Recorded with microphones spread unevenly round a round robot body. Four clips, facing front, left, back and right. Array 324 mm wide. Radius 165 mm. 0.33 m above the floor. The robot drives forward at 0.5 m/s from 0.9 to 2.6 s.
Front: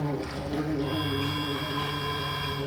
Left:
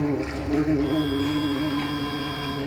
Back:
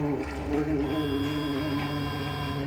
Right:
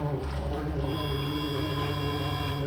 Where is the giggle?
I don't hear a giggle.